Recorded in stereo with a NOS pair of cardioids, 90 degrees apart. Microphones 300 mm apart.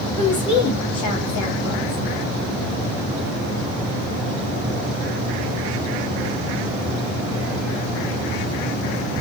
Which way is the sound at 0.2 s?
60° left.